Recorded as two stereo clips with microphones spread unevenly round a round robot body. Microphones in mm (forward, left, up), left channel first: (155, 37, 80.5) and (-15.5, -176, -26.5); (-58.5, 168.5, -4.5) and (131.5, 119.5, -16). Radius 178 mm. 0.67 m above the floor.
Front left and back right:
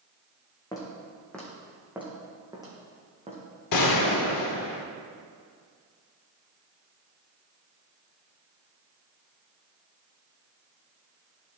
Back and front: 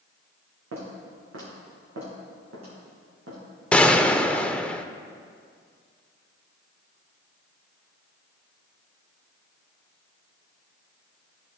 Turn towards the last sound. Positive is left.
turn(degrees=80)